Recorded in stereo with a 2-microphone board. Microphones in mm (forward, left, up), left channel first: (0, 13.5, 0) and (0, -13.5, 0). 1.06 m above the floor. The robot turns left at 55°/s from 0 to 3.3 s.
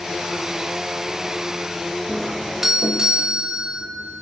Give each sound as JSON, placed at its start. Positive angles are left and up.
{"t": 2.1, "sound": "a doorbell", "azimuth_deg": 15, "distance_m": 2.5}